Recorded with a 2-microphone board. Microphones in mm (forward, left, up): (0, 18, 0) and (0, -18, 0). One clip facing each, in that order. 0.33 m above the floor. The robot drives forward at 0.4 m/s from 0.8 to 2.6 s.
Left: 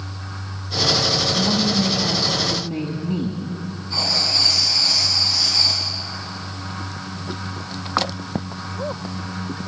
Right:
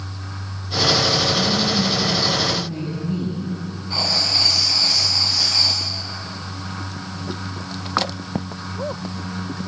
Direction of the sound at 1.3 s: 25° left (ahead or behind).